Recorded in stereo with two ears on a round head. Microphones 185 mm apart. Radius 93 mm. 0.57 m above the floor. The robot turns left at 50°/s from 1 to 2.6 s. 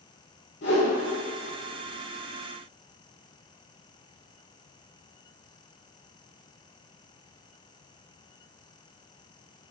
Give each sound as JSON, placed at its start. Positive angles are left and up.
{"t": 0.6, "sound": "a whoosh", "side_deg": 55, "distance_m": 2.0}